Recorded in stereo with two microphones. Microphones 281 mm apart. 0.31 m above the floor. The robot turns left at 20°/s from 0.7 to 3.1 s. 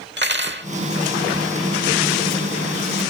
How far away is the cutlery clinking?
About 0.8 m.